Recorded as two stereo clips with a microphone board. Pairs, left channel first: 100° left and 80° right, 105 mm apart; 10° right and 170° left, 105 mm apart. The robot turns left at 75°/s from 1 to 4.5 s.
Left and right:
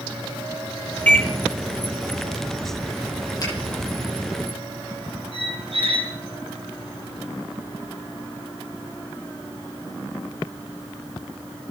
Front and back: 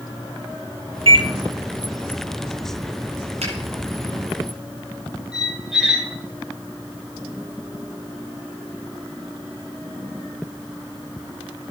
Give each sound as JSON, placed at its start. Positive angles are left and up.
{"t": 1.1, "sound": "a microwave", "azimuth_deg": 170, "distance_m": 1.7}
{"t": 3.4, "sound": "a finger snap", "azimuth_deg": 160, "distance_m": 9.5}
{"t": 5.3, "sound": "a squeak", "azimuth_deg": -105, "distance_m": 3.0}